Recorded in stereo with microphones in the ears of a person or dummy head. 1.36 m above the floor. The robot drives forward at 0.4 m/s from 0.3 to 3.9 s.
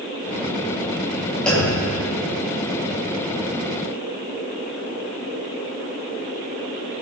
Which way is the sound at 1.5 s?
5° left (ahead or behind).